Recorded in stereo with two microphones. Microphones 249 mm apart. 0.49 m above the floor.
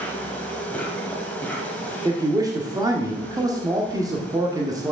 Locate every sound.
0.0 s an insect: 5° left (ahead or behind), 1.5 m
2.0 s a man speaking: 15° right (ahead or behind), 1.1 m